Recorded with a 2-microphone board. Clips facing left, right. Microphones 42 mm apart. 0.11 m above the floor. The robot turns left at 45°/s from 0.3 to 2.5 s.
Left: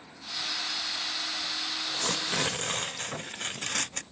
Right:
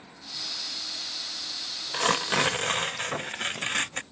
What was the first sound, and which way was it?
Tearing paper, 55° right (ahead or behind).